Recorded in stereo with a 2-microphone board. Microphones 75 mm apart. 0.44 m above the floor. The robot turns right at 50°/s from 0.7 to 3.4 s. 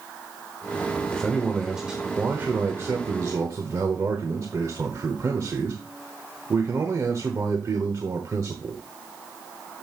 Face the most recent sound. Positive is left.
turn(degrees=-90)